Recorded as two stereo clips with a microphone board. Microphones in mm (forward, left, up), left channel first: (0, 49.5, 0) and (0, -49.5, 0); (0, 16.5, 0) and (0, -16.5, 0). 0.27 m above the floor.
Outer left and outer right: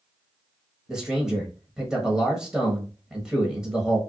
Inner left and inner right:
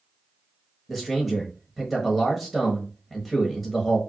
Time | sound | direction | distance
0.9 | a man speaking | 5° right (ahead or behind) | 1.4 m